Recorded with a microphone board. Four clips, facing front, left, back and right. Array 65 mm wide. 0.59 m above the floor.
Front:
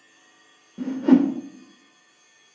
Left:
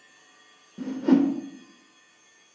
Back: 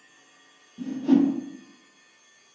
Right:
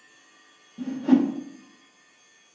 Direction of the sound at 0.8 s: 20° left.